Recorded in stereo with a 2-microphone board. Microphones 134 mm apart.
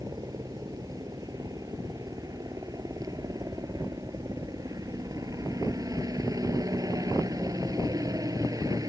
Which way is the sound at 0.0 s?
25° right (ahead or behind).